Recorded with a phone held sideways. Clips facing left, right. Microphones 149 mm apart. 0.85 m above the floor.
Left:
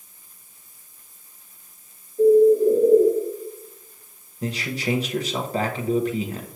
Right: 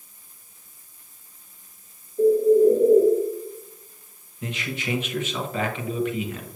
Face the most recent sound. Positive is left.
turn(degrees=35)  # may be behind; listen again after turning